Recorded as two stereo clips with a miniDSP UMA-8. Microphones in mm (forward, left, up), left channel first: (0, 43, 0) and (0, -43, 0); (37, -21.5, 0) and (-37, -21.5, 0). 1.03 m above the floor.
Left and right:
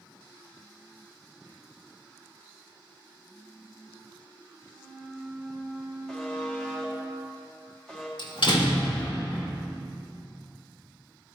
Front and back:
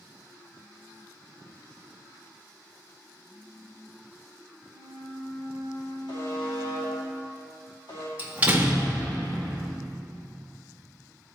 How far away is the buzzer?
About 1.8 m.